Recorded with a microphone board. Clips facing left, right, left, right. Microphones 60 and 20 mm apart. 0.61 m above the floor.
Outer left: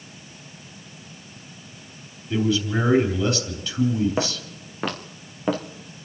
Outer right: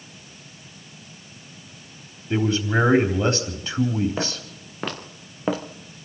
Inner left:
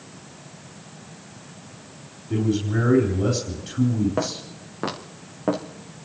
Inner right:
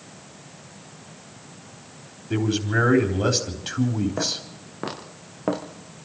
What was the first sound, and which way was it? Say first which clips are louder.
A man speaking: outer right 1 dB, even; 35° right (ahead or behind).